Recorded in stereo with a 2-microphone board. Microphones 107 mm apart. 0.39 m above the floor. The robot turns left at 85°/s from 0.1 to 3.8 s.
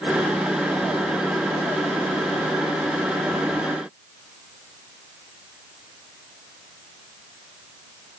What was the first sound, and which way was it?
Only background noise.